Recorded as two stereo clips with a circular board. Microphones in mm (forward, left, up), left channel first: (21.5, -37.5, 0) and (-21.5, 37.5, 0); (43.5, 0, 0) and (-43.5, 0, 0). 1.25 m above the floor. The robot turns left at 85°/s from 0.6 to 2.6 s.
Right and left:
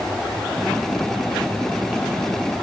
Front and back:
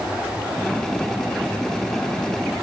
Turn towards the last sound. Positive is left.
No sound to turn to.